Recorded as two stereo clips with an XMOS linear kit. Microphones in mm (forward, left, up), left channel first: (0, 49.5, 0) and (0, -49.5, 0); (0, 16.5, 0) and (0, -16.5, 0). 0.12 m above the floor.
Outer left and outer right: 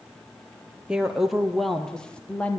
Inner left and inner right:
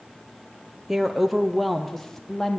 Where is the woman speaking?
10° right (ahead or behind), 3 m; by 2.6 s 15° left (ahead or behind), 4 m.